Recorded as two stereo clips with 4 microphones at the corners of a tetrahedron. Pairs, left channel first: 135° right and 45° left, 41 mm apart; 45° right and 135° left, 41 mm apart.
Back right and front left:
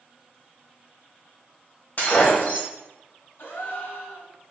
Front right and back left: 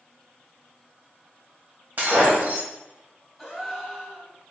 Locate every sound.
2.0 s breaking glass: 175° left, 1.4 m
3.4 s a gasp: 140° right, 1.3 m